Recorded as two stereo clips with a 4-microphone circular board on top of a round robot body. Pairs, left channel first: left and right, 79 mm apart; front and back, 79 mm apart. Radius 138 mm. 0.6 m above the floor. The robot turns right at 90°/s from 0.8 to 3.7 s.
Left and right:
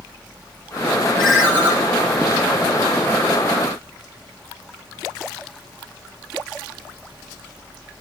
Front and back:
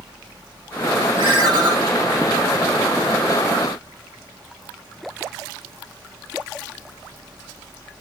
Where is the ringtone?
170° left, 8 m; by 1.7 s 140° right, 8 m.